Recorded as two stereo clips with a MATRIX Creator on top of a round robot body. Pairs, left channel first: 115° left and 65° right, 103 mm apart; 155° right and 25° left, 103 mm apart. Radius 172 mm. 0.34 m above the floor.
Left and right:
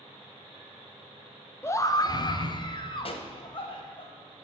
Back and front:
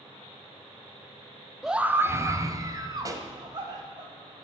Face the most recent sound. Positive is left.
turn(degrees=80)